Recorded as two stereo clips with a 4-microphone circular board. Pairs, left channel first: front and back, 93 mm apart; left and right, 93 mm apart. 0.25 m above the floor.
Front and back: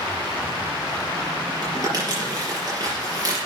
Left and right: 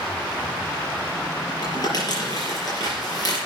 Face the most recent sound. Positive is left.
turn(degrees=135)